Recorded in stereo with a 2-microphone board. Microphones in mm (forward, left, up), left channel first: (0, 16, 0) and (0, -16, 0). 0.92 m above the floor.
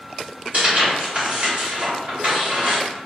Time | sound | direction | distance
0.5 | tearing paper | 45° right (ahead or behind) | 1.8 m